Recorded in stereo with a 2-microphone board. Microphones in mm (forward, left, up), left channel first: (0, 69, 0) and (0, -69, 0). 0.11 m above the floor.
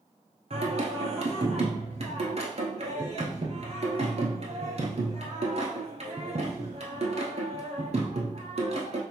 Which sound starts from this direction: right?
Singing, at 0.5 s.